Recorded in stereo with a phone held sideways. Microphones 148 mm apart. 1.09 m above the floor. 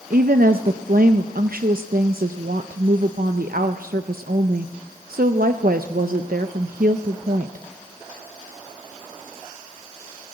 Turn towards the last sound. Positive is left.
turn(degrees=-75)  # may be behind; listen again after turning